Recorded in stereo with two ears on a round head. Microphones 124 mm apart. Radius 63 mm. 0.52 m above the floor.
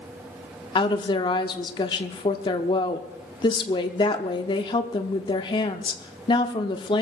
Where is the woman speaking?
35° left (ahead or behind), 0.8 m.